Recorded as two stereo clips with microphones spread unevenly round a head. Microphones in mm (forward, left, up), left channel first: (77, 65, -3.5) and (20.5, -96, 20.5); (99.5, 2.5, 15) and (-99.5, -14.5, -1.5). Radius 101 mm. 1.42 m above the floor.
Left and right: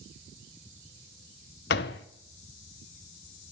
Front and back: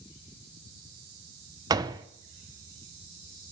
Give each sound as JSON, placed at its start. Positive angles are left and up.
{"t": 1.7, "sound": "a door slam", "azimuth_deg": 110, "distance_m": 0.5}